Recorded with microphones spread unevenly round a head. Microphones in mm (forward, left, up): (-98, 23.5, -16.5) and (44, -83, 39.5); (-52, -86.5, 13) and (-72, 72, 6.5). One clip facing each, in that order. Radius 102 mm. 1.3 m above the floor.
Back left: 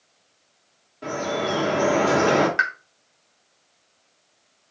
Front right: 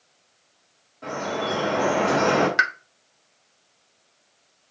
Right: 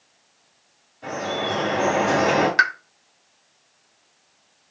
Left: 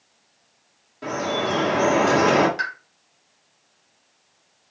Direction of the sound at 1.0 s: 85° left.